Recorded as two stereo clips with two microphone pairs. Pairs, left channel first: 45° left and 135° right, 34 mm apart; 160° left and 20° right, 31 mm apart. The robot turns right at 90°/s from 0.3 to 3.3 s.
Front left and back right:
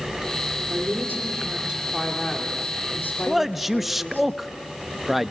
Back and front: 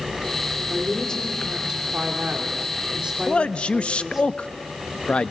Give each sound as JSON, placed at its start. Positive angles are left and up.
{"t": 0.7, "sound": "a woman speaking", "azimuth_deg": -175, "distance_m": 2.5}
{"t": 3.3, "sound": "a man speaking", "azimuth_deg": 140, "distance_m": 0.6}